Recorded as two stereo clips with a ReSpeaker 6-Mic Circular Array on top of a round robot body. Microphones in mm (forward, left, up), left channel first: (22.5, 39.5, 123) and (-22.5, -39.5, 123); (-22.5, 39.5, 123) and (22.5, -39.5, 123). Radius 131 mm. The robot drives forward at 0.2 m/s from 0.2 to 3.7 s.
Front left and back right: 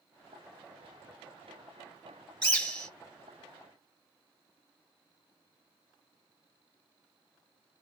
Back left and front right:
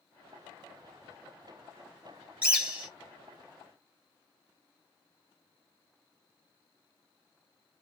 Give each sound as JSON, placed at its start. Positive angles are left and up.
{"t": 2.4, "sound": "a bird", "azimuth_deg": 0, "distance_m": 1.2}